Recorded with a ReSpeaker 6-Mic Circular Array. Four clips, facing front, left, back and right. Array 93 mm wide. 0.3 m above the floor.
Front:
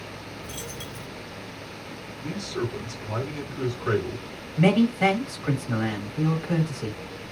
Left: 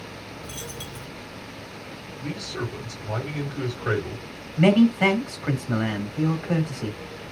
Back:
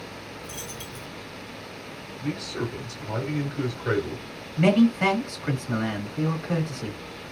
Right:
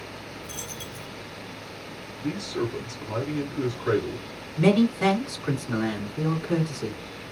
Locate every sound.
0.4 s a dropped coin: 60° left, 1.7 m
2.2 s a man speaking: 115° left, 1.6 m
4.6 s a man speaking: 90° left, 1.7 m